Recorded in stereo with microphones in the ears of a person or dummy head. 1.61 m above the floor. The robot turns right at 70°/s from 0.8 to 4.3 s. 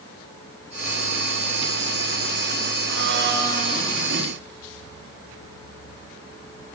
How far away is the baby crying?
No baby crying in this recording.